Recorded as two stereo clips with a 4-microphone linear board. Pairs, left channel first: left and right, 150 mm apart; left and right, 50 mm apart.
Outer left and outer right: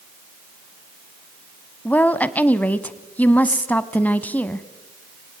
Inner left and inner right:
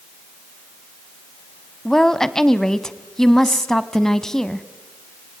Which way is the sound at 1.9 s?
10° left (ahead or behind).